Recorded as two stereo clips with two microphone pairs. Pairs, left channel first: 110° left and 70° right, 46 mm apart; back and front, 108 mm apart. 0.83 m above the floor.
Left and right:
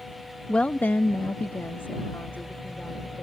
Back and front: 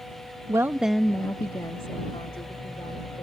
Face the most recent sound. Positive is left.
turn(degrees=150)